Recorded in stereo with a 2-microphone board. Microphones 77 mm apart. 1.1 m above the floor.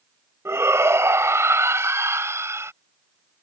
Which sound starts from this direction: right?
A shout, at 0.5 s.